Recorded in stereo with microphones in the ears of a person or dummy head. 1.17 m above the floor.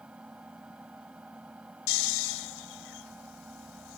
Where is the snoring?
80° left.